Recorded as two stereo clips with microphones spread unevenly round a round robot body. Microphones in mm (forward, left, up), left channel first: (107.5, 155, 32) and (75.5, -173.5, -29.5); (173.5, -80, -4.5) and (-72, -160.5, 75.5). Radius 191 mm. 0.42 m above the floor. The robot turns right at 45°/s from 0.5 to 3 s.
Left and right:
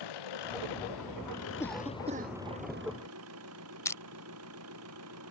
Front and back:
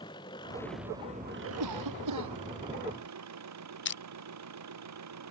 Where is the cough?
165° left; by 2.4 s 160° right.